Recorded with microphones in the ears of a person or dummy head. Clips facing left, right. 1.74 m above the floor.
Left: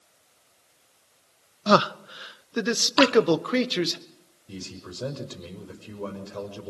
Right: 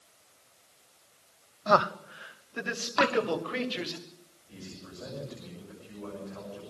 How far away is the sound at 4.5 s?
About 6 m.